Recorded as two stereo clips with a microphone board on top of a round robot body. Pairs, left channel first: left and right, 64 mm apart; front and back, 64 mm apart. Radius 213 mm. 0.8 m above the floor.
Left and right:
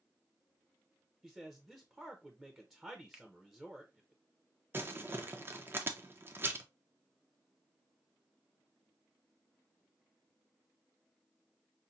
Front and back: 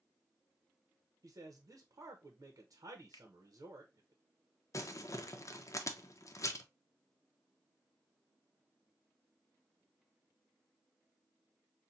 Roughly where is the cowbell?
I don't hear a cowbell.